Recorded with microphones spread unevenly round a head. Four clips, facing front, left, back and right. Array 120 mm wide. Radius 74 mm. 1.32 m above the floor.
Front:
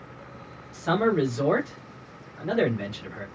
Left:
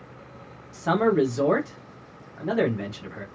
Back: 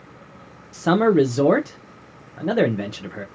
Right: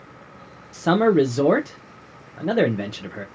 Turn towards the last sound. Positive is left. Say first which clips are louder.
# right 4 dB, back 7 dB
turn(degrees=-135)